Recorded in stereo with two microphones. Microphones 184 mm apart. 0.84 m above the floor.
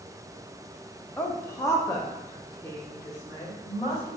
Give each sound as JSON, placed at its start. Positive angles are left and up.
{"t": 1.2, "sound": "a woman speaking", "side_deg": 10, "distance_m": 0.5}